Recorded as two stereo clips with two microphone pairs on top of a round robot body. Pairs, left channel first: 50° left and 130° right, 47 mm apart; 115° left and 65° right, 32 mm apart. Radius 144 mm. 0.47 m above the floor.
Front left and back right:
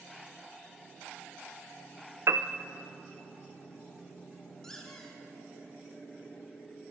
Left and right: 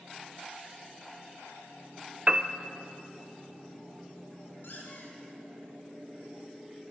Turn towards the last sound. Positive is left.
turn(degrees=135)